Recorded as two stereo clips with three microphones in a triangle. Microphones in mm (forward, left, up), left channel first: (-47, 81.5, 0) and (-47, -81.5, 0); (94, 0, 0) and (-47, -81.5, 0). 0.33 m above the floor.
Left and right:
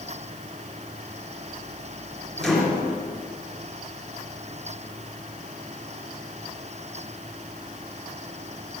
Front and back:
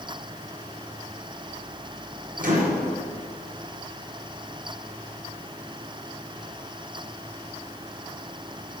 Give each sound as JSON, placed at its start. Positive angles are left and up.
{"t": 2.4, "sound": "a microwave", "azimuth_deg": 180, "distance_m": 4.0}